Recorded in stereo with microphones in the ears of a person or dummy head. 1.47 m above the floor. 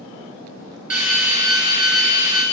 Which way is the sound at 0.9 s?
5° right (ahead or behind).